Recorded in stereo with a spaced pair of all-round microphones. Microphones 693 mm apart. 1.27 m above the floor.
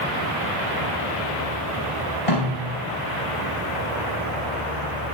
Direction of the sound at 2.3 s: 55° left (ahead or behind).